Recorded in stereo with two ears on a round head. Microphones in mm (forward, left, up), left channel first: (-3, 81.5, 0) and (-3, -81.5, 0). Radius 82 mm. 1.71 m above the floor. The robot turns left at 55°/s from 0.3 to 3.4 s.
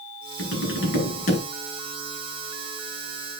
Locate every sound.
0.4 s tapping: 95° left, 6 m; by 1.4 s 40° left, 6 m